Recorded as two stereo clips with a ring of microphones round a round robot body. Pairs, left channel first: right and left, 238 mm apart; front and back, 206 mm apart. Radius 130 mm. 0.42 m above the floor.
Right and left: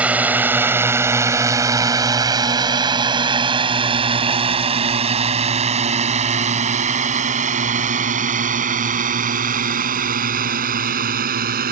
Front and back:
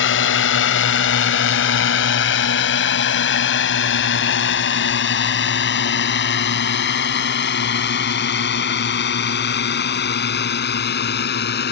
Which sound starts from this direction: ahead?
A drone, at 0.0 s.